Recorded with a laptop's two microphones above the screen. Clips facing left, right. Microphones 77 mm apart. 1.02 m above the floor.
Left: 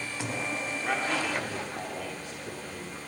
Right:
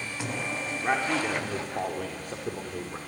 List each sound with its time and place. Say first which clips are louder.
0.8 s a man speaking: right 4 dB; 25° right (ahead or behind), 2.5 m; by 3.0 s 60° right (ahead or behind), 3 m